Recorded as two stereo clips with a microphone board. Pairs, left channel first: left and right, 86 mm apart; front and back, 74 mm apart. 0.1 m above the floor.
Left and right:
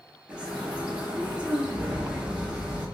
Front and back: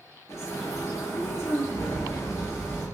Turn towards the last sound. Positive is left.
turn(degrees=-15)